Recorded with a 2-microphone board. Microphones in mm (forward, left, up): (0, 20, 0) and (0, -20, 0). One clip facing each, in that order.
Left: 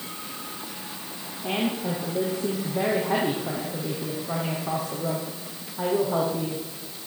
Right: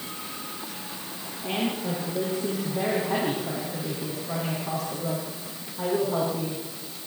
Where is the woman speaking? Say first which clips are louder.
Left 1 dB; 25° left (ahead or behind), 6.5 m.